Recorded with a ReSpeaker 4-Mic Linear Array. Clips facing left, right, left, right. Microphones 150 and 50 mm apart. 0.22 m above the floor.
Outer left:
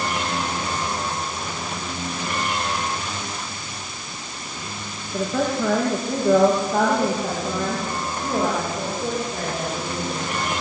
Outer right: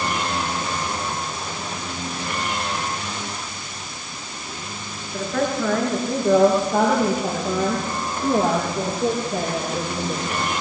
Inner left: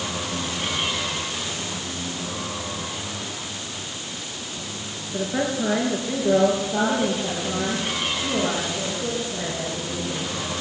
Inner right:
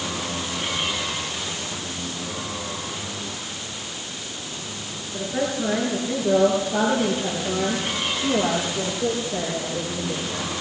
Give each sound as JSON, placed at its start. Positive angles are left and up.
{"t": 5.1, "sound": "a woman speaking", "side_deg": 15, "distance_m": 4.0}